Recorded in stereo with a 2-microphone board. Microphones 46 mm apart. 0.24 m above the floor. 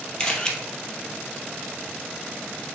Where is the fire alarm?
I don't hear a fire alarm.